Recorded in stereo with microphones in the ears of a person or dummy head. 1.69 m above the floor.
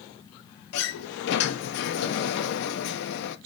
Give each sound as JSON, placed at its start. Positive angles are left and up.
{"t": 0.7, "sound": "a sliding door", "side_deg": 60, "distance_m": 0.6}